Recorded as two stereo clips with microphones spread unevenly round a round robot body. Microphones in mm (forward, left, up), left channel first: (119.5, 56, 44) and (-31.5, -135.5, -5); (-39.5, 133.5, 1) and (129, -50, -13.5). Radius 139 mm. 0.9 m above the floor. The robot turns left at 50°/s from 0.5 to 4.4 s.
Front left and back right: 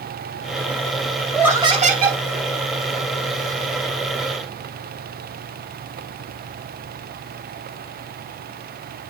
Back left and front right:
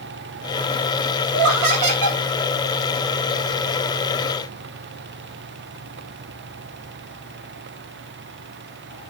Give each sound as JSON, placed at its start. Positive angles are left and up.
{"t": 1.3, "sound": "laughter", "azimuth_deg": -40, "distance_m": 3.5}